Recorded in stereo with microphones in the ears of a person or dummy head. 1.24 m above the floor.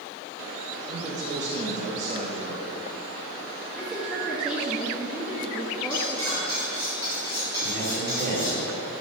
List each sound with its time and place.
0.9 s a man speaking: 35° right (ahead or behind), 1.4 m
3.8 s a woman speaking: centre (ahead or behind), 2 m
5.9 s cutlery clinking: 30° right (ahead or behind), 3.5 m
7.6 s a man speaking: 55° right (ahead or behind), 3.5 m